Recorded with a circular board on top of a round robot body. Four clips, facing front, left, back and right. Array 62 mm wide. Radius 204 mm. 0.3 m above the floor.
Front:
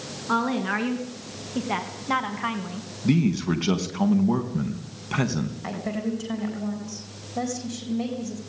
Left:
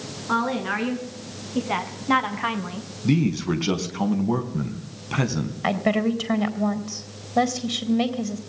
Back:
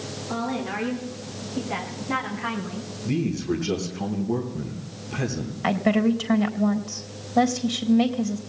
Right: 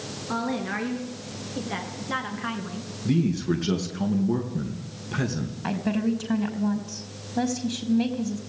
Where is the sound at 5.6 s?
120° left, 4 m.